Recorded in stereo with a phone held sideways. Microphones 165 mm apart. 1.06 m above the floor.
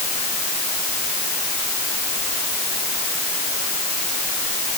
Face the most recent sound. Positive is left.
No sound to turn to.